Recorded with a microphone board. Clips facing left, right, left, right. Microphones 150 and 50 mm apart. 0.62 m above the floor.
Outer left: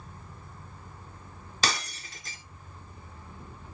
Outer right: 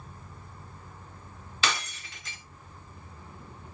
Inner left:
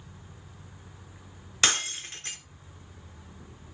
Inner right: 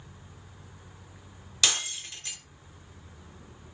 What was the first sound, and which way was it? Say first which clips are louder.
Breaking glass: even, inner left 2 dB; 40° left (ahead or behind).